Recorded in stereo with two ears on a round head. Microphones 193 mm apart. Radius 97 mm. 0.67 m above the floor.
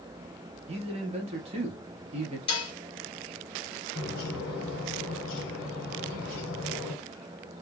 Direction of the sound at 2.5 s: 25° left (ahead or behind).